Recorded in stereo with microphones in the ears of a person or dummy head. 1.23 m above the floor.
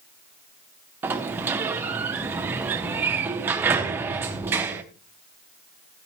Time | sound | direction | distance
1.0 | a sliding door | 15° right (ahead or behind) | 0.7 m